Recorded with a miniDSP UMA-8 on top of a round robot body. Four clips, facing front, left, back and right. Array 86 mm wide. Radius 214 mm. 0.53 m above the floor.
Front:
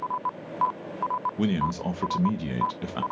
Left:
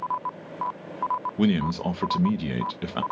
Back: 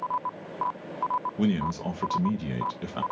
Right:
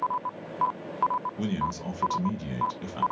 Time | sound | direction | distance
1.4 | a man speaking | 80° left | 0.9 m